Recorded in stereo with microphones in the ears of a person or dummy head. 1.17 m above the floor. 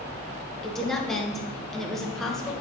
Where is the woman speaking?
Centre (ahead or behind), 0.6 m.